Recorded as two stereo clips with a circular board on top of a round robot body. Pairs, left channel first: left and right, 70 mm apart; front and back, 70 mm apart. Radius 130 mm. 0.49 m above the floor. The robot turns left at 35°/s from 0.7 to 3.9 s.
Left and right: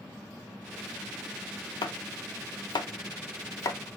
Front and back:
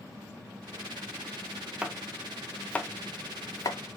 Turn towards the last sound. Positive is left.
turn(degrees=35)